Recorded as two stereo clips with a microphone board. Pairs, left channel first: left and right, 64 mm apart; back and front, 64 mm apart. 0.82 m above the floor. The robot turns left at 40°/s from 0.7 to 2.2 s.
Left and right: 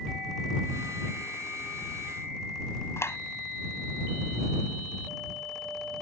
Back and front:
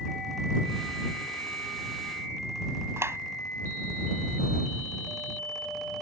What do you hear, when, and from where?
3.0 s a clap: 45° left